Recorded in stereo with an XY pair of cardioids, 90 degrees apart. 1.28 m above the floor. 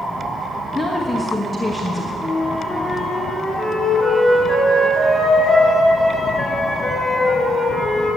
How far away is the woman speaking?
About 1.4 m.